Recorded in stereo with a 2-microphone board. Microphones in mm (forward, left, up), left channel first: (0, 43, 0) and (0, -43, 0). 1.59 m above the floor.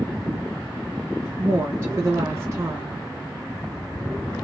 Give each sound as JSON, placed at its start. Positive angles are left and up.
{"t": 1.4, "sound": "a woman speaking", "side_deg": -45, "distance_m": 1.4}